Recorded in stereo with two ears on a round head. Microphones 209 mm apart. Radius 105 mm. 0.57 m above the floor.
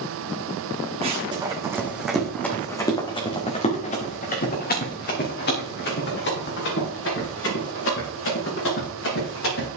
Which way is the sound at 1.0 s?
25° right (ahead or behind).